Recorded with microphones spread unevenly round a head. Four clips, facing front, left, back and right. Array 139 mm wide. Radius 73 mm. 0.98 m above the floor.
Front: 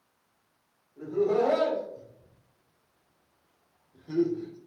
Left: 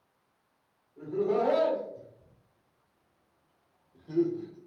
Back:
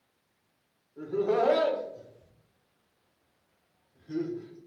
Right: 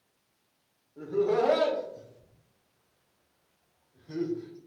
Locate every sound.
1.0 s laughter: 125° right, 1.5 m; by 4.6 s 30° left, 1.1 m